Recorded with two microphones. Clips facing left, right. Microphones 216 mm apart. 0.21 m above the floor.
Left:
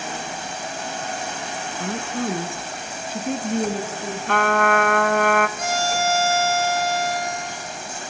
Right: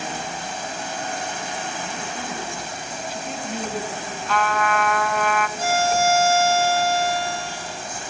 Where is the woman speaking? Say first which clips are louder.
Left 6 dB; 60° left (ahead or behind), 3.5 m; by 4.2 s 40° left (ahead or behind), 6 m.